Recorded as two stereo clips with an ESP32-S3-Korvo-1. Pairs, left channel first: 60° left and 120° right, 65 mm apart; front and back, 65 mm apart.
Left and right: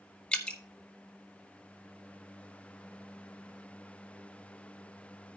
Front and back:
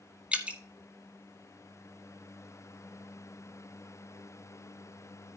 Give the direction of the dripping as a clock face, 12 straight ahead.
8 o'clock.